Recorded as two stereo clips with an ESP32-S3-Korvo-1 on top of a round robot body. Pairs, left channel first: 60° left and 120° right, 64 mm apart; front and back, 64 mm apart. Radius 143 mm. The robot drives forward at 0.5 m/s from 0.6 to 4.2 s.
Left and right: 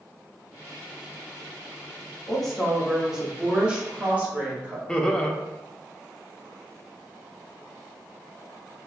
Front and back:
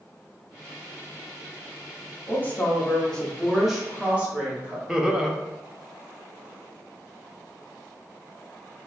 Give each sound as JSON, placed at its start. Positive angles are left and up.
{"t": 2.3, "sound": "a woman speaking", "azimuth_deg": -20, "distance_m": 1.3}
{"t": 4.9, "sound": "laughter", "azimuth_deg": 110, "distance_m": 0.7}